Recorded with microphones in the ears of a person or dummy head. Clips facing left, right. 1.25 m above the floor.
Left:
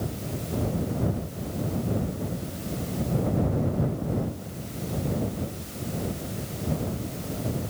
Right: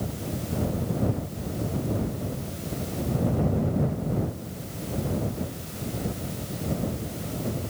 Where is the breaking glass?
No breaking glass in this recording.